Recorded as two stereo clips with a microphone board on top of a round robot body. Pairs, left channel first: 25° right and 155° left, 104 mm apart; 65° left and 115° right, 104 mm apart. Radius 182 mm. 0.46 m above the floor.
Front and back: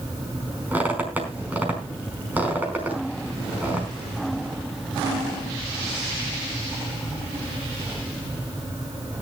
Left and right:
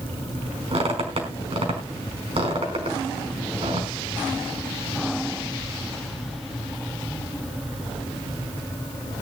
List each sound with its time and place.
0.7 s a squeak: 130° right, 5 m